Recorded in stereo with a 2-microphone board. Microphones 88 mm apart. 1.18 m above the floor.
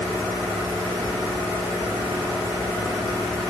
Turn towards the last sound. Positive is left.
No sound to turn to.